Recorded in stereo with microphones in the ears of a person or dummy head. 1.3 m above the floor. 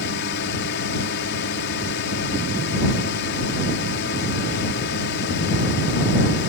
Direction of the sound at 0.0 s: 55° left (ahead or behind).